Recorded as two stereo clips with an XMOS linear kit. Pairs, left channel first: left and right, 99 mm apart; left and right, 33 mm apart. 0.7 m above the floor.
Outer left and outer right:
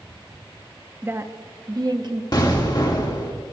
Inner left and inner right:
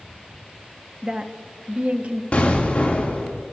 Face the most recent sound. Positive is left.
turn(degrees=45)  # may be behind; listen again after turning